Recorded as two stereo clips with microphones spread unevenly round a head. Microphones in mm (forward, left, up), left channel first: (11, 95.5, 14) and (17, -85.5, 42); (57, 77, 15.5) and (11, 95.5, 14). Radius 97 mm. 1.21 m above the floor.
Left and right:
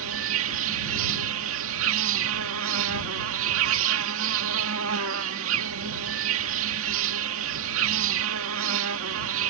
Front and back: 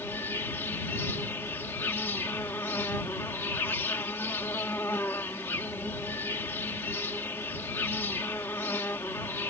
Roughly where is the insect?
Right.